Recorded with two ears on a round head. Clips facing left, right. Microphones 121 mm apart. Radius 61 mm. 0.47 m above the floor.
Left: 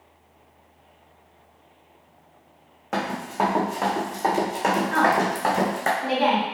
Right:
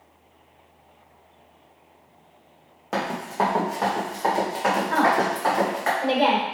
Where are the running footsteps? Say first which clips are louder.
Even; 10° right (ahead or behind), 1.8 m; by 5.9 s 45° left (ahead or behind), 2 m.